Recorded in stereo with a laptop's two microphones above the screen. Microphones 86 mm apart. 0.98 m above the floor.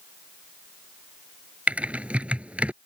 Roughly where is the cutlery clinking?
No cutlery clinking in this recording.